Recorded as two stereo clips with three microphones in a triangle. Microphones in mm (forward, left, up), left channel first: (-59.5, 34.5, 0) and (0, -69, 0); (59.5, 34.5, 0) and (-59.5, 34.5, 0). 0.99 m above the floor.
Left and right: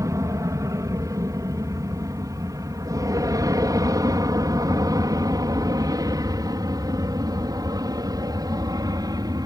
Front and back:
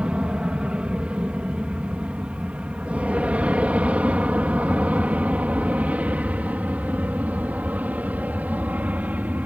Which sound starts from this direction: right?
An aircraft, at 0.0 s.